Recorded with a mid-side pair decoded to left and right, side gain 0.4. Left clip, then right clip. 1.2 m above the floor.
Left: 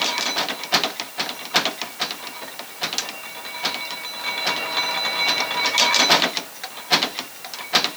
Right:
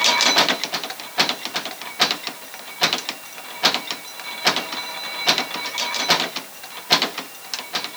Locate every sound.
Only background noise.